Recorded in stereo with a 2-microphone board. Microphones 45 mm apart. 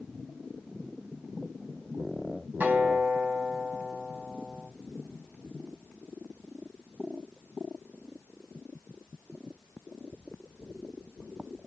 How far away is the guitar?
About 1.5 m.